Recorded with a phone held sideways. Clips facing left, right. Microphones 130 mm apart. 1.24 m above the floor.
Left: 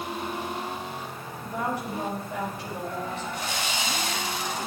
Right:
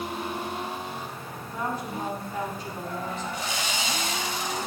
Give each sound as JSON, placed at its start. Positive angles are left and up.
{"t": 1.4, "sound": "a woman speaking", "side_deg": 85, "distance_m": 6.0}
{"t": 3.3, "sound": "sawing", "side_deg": 60, "distance_m": 3.0}